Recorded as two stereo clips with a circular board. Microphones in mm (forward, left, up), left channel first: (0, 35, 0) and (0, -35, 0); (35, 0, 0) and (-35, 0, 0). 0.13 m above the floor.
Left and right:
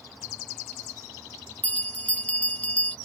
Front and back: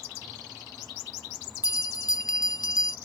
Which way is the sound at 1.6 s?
20° left.